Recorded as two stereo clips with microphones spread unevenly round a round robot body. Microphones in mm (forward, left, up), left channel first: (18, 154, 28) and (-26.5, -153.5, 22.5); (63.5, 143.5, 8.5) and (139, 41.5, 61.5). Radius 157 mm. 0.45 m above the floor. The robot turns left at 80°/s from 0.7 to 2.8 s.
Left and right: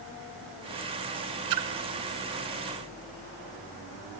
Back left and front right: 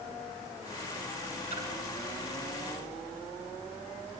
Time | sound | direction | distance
1.5 | a splash | 125° right | 2.0 m